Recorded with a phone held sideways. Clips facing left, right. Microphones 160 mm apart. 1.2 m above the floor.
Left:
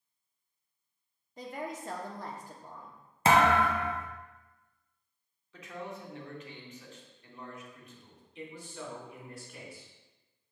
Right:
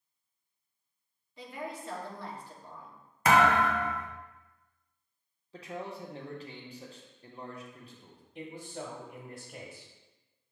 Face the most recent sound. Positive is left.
turn(degrees=-55)  # may be behind; listen again after turning